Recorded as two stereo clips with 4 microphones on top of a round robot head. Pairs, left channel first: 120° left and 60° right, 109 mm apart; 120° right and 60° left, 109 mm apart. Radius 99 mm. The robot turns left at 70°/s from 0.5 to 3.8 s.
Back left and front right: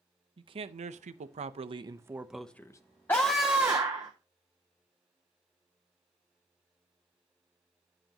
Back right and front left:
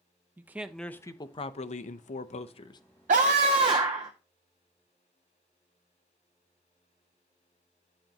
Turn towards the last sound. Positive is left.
turn(degrees=0)